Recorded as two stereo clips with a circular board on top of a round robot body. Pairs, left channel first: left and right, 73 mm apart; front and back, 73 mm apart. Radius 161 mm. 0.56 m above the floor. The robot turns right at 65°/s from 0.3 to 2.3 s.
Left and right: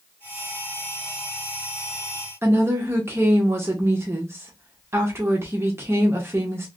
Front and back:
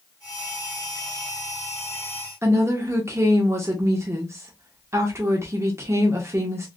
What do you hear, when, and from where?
2.4 s a woman speaking: 140° right, 1.0 m